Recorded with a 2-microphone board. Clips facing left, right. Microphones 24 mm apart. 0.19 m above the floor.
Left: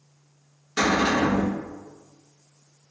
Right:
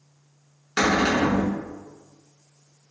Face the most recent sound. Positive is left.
turn(degrees=-35)  # may be behind; listen again after turning